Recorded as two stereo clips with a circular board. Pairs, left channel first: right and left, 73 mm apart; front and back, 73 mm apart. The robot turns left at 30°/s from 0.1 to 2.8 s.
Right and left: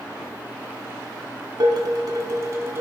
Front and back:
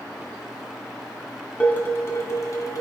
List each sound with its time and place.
1.6 s dishes clattering: 70° left, 2.5 m; by 2.8 s 35° left, 2.5 m